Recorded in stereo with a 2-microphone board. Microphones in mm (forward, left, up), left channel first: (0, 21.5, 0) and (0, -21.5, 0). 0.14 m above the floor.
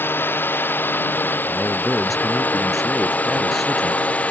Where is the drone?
55° left (ahead or behind); by 4.3 s 35° left (ahead or behind).